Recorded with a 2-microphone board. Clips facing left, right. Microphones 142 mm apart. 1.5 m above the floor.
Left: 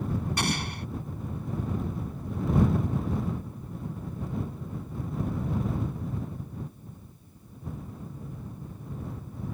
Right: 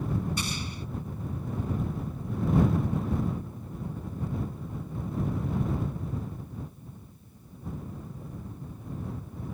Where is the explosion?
70° left (ahead or behind).